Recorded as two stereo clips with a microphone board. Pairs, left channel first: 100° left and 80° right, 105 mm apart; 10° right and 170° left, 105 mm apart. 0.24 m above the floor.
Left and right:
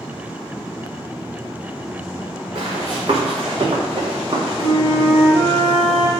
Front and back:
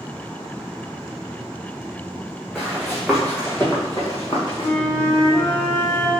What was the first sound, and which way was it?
Running footsteps, 105° right.